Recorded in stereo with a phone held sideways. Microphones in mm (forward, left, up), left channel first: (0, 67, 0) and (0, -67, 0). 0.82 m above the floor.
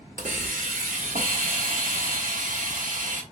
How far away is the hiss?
About 1.2 m.